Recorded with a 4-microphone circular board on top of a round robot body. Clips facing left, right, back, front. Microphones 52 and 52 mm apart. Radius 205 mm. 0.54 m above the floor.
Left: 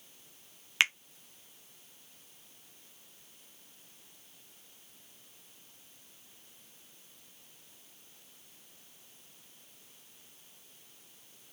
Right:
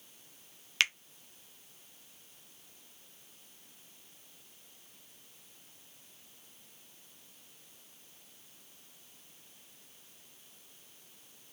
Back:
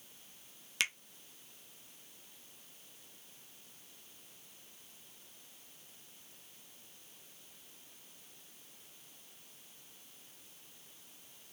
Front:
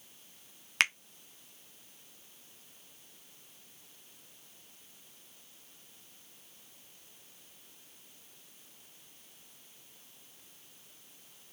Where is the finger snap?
25° left, 0.6 m.